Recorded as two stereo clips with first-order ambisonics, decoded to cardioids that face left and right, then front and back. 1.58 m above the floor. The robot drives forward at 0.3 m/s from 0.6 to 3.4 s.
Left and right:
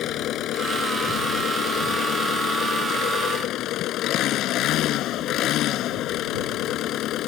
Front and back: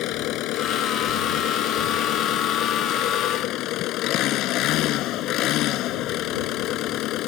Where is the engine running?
40° left; by 7.3 s 45° left.